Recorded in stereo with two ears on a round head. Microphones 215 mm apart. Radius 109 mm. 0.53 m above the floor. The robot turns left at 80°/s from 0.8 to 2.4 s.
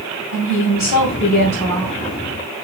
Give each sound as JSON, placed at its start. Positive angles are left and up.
{"t": 0.3, "sound": "a woman speaking", "azimuth_deg": 85, "distance_m": 2.5}